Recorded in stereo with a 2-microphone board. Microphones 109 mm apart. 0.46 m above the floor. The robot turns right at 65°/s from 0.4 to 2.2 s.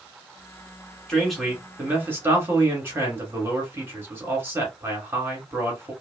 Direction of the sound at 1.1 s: 5° left (ahead or behind).